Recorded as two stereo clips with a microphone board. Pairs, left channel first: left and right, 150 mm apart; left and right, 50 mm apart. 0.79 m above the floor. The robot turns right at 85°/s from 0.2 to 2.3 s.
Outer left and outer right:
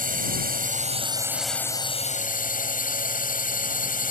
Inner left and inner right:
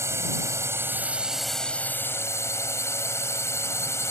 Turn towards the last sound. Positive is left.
turn(degrees=70)